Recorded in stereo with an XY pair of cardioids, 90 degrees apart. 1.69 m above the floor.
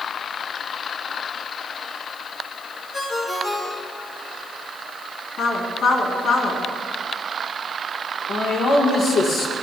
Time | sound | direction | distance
2.9 | a ringtone | 35° left | 4.5 m
5.4 | a woman speaking | 65° left | 3.5 m
8.3 | a man speaking | 60° left | 4.5 m